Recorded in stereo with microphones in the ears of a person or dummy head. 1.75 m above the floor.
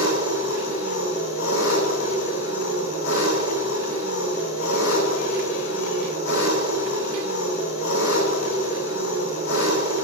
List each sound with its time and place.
0.0 s an engine running: 85° left, 9.5 m